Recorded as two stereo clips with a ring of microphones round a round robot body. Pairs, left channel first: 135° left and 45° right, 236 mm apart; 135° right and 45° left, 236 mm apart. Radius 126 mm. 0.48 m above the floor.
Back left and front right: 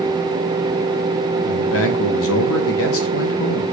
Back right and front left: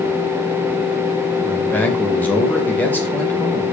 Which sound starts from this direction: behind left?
A man speaking, at 1.4 s.